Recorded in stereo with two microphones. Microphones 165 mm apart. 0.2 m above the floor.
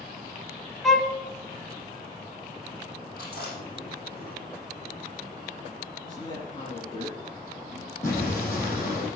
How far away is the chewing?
About 6 m.